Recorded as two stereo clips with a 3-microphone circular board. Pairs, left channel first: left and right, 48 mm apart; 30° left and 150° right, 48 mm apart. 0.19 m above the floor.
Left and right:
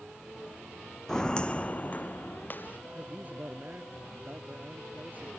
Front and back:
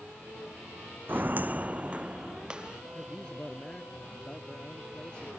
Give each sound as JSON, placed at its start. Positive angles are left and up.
{"t": 1.1, "sound": "footsteps", "azimuth_deg": 170}
{"t": 3.0, "sound": "a man speaking", "azimuth_deg": -40}